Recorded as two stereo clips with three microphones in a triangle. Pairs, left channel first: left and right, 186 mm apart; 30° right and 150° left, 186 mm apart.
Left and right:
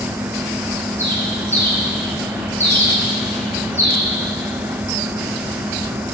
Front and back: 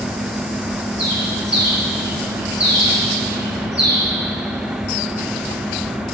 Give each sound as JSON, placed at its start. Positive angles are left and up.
{"t": 1.0, "sound": "a bird", "azimuth_deg": 165, "distance_m": 3.0}